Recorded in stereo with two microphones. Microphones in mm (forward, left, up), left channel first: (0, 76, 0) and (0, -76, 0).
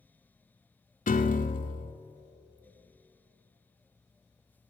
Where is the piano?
60° left (ahead or behind), 0.5 m.